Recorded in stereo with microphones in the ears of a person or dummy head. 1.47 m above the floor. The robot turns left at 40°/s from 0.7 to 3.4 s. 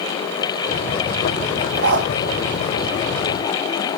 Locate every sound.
1.8 s a dog barking: 55° right (ahead or behind), 1.7 m